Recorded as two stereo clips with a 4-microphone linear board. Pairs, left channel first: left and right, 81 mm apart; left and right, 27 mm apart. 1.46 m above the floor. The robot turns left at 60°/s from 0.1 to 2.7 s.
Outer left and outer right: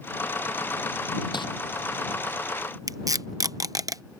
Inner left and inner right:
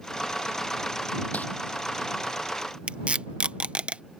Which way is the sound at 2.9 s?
50° right (ahead or behind).